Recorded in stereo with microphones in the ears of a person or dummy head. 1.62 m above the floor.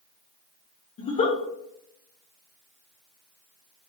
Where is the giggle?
40° left (ahead or behind), 0.8 m.